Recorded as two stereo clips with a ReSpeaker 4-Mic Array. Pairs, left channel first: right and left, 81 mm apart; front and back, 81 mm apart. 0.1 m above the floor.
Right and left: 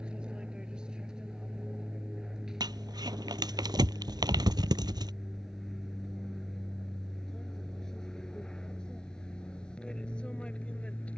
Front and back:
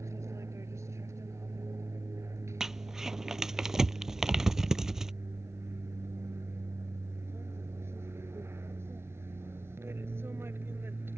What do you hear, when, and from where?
0.0 s an aircraft: 160° left; by 11.2 s 150° right
2.6 s crumpling: 95° left